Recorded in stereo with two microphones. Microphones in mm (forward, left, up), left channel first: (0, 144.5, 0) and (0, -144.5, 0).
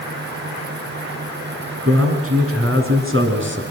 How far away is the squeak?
I don't hear a squeak.